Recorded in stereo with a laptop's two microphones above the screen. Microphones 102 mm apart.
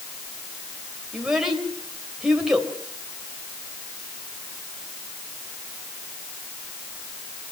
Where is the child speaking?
5° right (ahead or behind), 3 m.